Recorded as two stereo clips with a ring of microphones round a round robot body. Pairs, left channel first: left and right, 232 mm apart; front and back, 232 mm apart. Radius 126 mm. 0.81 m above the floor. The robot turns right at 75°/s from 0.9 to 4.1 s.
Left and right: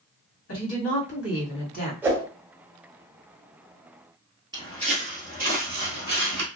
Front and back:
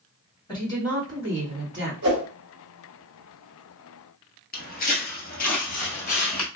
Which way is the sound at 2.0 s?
170° right.